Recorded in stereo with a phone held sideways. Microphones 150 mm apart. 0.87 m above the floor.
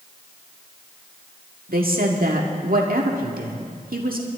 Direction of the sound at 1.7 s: 75° right (ahead or behind).